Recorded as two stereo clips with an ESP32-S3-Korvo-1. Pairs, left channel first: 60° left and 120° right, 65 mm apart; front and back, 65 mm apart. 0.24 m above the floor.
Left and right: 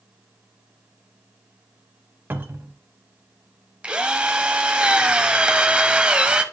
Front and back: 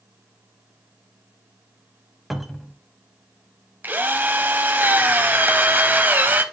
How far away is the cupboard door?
About 0.8 m.